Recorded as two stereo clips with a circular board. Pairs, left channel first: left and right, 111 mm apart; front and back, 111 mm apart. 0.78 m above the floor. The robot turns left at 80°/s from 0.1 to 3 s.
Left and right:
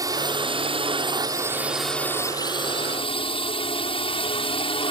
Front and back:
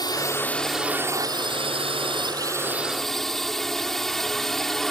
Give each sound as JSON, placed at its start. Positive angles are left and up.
{"t": 0.0, "sound": "a drone", "azimuth_deg": -40}